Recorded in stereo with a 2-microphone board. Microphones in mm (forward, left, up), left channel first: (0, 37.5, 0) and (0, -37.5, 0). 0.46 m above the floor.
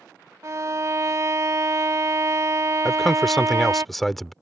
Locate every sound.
0.4 s a violin: 45° right (ahead or behind)
2.9 s a man speaking: centre (ahead or behind)